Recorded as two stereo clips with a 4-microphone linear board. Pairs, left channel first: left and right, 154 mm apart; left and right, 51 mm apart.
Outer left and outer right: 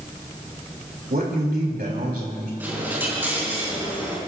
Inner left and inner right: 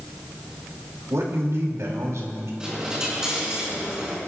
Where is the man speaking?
80° right, 3.5 m.